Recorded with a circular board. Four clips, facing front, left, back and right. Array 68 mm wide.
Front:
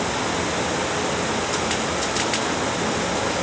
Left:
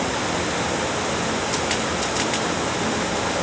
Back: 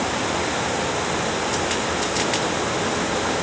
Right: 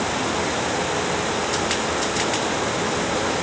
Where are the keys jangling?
I don't hear keys jangling.